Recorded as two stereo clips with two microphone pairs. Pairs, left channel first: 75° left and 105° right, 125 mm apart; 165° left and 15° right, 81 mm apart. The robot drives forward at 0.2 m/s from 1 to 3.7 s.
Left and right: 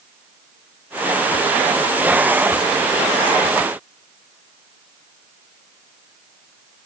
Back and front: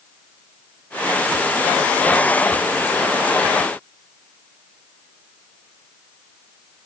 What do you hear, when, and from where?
Only background noise.